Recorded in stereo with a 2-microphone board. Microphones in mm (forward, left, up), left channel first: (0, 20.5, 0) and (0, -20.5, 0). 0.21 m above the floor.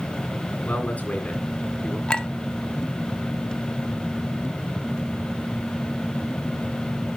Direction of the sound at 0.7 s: 40° left (ahead or behind).